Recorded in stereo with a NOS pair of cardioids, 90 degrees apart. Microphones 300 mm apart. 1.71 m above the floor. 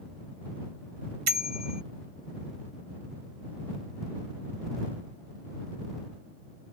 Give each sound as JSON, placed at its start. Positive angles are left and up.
{"t": 1.3, "sound": "a bicycle bell", "azimuth_deg": -60}